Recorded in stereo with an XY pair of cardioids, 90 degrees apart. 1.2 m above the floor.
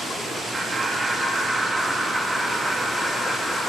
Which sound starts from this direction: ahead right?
Laughter, at 0.5 s.